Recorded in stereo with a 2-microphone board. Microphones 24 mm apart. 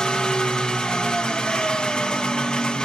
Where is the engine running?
40° left (ahead or behind), 0.9 m.